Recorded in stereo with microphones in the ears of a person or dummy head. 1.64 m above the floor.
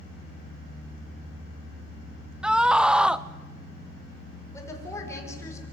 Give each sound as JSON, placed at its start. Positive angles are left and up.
{"t": 2.4, "sound": "a scream", "side_deg": 0, "distance_m": 0.7}
{"t": 4.5, "sound": "a woman speaking", "side_deg": 15, "distance_m": 5.0}